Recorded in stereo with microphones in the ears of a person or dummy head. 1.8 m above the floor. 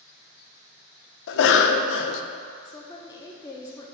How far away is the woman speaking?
About 0.8 m.